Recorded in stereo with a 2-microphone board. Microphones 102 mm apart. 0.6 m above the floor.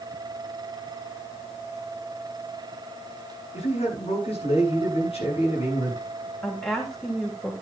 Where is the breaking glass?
No breaking glass in this recording.